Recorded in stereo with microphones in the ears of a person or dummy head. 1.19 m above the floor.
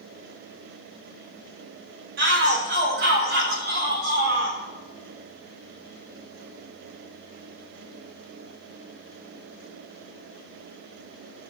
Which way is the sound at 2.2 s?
55° right (ahead or behind).